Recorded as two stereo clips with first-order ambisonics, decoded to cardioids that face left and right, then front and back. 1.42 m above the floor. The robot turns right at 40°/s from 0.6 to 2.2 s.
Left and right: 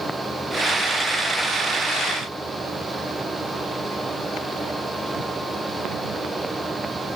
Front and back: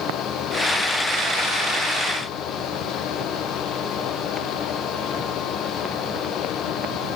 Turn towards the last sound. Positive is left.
No sound to turn to.